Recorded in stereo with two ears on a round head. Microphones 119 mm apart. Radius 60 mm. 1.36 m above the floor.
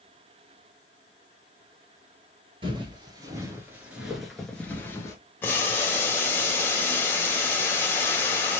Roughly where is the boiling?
Centre.